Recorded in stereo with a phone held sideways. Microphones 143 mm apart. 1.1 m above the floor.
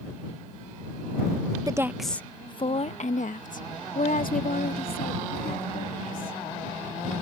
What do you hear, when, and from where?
1.7 s a woman speaking: 25° right (ahead or behind); by 6.4 s 85° left